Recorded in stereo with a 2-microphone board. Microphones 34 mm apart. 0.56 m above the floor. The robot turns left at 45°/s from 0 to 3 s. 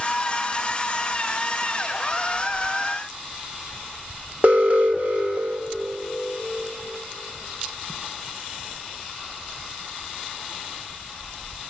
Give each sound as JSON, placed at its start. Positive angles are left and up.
{"t": 4.4, "sound": "an alarm", "side_deg": -55, "distance_m": 1.6}